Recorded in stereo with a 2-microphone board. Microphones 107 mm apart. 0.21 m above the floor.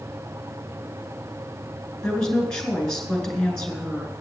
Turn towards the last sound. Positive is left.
turn(degrees=10)  # may be behind; listen again after turning